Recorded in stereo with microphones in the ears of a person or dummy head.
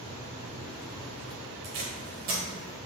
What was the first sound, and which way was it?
Tape being pulled, 40° right (ahead or behind).